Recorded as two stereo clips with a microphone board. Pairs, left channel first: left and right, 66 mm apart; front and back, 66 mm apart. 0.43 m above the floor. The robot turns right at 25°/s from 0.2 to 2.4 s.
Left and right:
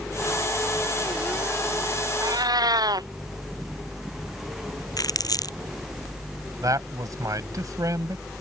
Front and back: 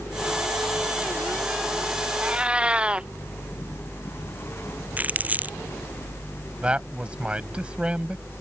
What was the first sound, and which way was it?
A cat meowing, 110° right.